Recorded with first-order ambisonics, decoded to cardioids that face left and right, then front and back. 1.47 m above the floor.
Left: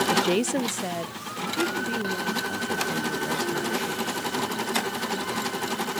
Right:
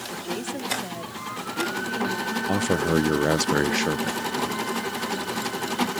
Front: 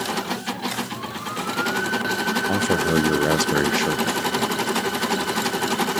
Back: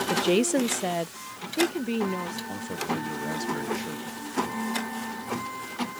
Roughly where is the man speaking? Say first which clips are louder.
Right 4 dB, front 11 dB; ahead right.